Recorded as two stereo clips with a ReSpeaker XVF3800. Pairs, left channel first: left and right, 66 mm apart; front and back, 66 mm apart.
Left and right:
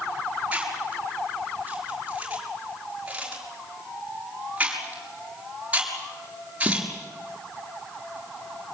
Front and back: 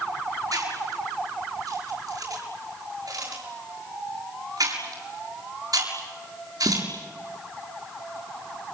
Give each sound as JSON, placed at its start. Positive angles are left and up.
{"t": 0.5, "sound": "chewing", "azimuth_deg": -160, "distance_m": 7.5}